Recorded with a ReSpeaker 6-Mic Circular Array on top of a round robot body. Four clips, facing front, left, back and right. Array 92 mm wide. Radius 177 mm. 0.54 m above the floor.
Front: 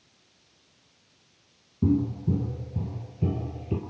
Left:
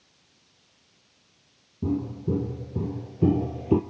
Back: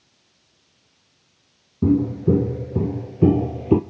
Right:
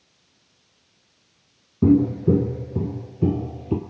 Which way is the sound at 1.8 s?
110° right.